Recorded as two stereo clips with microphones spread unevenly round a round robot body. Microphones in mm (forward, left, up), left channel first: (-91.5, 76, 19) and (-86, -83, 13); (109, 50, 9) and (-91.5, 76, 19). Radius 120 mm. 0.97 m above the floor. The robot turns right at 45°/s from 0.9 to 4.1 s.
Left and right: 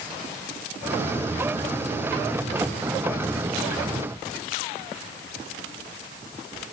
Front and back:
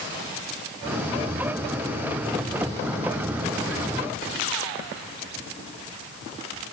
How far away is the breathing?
I don't hear breathing.